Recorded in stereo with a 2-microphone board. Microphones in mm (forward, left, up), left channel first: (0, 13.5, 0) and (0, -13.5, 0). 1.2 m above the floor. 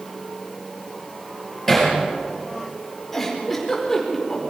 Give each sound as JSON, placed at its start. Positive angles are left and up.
{"t": 1.7, "sound": "hammering", "side_deg": 10, "distance_m": 8.5}
{"t": 3.1, "sound": "a giggle", "side_deg": 15, "distance_m": 4.5}